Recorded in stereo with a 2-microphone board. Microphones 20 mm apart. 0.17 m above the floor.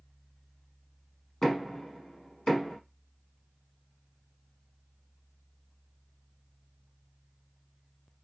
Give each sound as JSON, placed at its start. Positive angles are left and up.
{"t": 1.4, "sound": "knocking", "side_deg": 30, "distance_m": 1.2}